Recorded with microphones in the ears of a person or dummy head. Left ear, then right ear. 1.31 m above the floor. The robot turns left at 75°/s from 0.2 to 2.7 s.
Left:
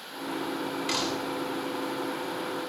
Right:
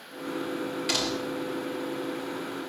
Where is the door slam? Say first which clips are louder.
Right 2 dB; 160° left, 3 m; by 1.4 s 125° left, 3 m.